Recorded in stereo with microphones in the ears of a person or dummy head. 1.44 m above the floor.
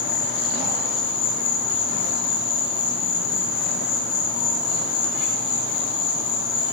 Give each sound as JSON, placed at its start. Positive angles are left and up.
{"t": 0.0, "sound": "an insect", "side_deg": 65, "distance_m": 1.7}